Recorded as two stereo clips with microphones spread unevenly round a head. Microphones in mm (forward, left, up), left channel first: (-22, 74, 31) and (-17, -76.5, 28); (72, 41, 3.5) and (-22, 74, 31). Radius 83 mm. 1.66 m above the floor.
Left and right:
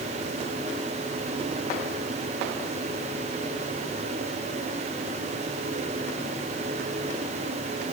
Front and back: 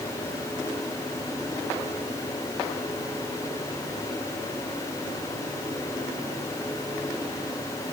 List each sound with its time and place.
Only background noise.